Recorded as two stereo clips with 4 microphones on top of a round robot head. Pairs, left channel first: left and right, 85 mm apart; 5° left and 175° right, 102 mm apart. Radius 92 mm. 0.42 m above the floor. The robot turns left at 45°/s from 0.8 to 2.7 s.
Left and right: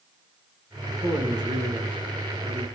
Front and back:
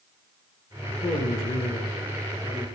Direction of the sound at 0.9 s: 30° right.